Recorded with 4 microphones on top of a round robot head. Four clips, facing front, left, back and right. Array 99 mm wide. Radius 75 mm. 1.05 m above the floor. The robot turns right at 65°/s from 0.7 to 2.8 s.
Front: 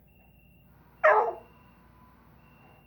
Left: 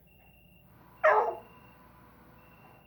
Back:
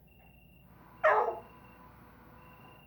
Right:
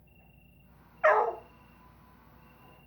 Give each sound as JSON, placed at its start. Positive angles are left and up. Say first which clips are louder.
{"t": 0.0, "sound": "an insect", "louder": "even, even", "azimuth_deg": 45, "distance_m": 4.5}
{"t": 1.0, "sound": "a dog barking", "louder": "even, front 5 dB", "azimuth_deg": -5, "distance_m": 0.6}